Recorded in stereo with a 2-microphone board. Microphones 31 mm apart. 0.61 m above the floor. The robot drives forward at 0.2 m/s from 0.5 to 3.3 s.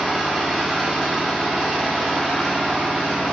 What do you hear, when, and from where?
0.0 s an engine running: 15° right (ahead or behind), 1.0 m; by 3.3 s 10° right (ahead or behind), 1.5 m